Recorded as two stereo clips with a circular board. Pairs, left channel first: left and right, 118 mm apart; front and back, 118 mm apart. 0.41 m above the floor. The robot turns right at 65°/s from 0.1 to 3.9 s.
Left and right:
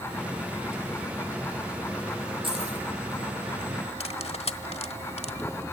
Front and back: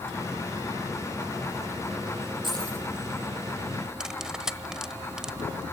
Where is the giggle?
No giggle in this recording.